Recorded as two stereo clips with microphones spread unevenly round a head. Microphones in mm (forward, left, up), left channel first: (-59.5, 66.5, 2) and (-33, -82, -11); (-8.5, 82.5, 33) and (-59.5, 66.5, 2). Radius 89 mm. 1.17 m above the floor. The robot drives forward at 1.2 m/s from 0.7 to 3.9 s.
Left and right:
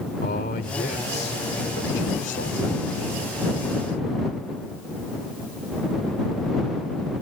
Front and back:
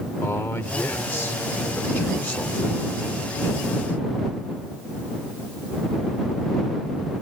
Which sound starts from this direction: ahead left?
A man speaking, at 0.2 s.